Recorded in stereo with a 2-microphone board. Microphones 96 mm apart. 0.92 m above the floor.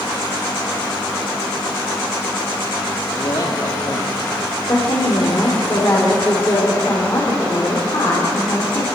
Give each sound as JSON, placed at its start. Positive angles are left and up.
{"t": 3.1, "sound": "a man speaking", "side_deg": 50, "distance_m": 1.9}
{"t": 4.7, "sound": "a woman speaking", "side_deg": 40, "distance_m": 3.0}